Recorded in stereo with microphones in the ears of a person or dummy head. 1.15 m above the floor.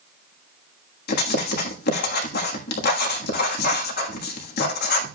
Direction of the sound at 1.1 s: 55° left (ahead or behind).